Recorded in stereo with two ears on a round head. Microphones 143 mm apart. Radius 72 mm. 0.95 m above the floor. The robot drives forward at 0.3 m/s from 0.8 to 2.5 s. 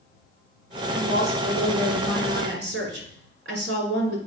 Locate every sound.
0.9 s a woman speaking: 80° right, 3 m